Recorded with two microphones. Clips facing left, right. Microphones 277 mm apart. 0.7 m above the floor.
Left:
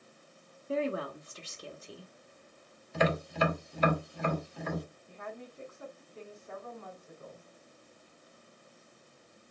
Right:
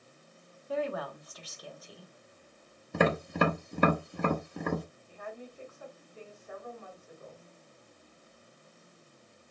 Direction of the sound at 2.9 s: 60° right (ahead or behind).